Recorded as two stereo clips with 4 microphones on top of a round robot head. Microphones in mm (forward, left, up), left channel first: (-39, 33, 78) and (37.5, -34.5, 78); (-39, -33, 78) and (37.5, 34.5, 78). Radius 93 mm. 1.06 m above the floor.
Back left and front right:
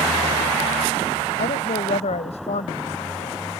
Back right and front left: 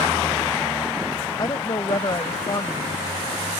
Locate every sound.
1.4 s a woman speaking: 165° left